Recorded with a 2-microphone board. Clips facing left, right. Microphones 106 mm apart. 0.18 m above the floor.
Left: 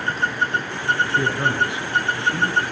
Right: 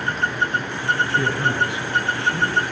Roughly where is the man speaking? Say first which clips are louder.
Even; left.